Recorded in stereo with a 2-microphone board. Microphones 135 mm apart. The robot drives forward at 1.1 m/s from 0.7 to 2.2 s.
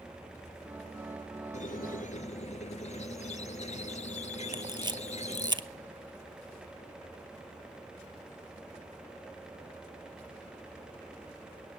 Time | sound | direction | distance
1.5 | a squeak | 60° left (ahead or behind) | 0.7 m
4.5 | a camera shutter | 35° right (ahead or behind) | 0.7 m